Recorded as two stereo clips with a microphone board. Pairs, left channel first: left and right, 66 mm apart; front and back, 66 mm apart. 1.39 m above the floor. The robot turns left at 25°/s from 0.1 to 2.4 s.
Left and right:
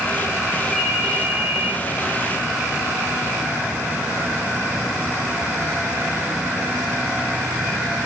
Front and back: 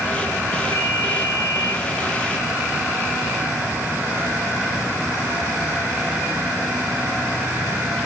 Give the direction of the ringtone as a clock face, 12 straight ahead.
11 o'clock.